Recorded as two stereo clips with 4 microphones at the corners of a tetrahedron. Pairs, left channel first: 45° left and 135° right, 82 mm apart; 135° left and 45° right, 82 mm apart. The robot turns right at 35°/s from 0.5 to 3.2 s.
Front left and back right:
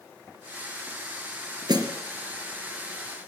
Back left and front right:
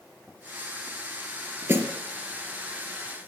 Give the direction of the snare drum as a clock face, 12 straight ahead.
4 o'clock.